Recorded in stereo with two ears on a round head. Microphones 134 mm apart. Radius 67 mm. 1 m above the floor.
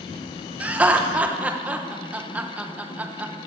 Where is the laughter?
10° right (ahead or behind), 0.9 m.